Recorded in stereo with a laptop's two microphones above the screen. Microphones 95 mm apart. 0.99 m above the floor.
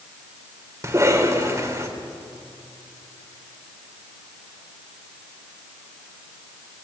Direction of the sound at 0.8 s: 30° right (ahead or behind).